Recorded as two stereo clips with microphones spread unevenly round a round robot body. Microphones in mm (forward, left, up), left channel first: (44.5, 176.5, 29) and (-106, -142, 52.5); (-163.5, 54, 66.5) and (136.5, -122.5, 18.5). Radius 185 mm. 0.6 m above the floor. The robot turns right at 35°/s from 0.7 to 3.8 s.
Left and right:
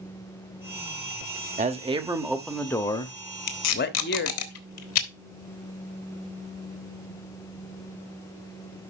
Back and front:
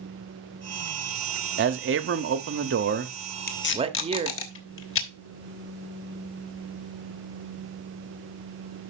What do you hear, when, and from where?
1.6 s a man speaking: 55° right, 1.0 m; by 4.3 s 25° left, 1.0 m
3.5 s tape being pulled: 85° left, 1.4 m; by 5.1 s 95° left, 1.4 m